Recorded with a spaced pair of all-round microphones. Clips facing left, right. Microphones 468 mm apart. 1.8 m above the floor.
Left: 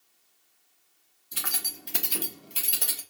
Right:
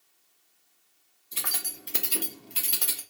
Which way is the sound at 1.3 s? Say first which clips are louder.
Even; 30° left (ahead or behind).